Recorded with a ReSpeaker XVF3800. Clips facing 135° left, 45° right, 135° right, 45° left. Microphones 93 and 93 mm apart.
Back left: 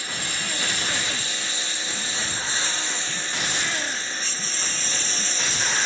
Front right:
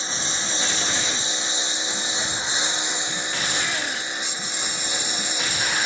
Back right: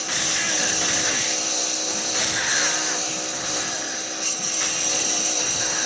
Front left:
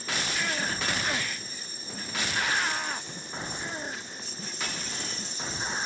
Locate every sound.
0.0 s a lawn mower: 115° right; by 5.9 s 120° right